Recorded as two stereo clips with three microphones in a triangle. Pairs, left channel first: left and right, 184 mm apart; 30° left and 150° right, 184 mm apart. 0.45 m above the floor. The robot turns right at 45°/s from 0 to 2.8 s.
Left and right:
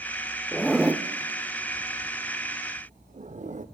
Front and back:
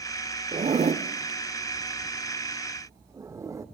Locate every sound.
0.5 s a zipper: 175° left, 0.8 m; by 3.6 s 85° right, 0.8 m